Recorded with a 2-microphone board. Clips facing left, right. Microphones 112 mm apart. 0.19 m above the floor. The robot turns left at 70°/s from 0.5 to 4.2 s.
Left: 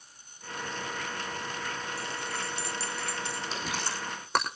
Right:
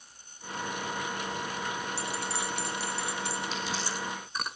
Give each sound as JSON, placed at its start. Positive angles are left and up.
{"t": 2.0, "sound": "a bell", "azimuth_deg": -75, "distance_m": 3.0}
{"t": 3.5, "sound": "chewing", "side_deg": 35, "distance_m": 5.5}